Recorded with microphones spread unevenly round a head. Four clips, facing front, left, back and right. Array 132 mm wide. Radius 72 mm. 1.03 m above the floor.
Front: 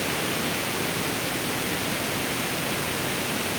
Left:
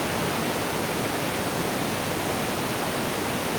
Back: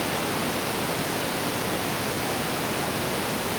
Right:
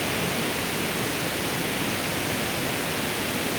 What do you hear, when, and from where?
Only background noise.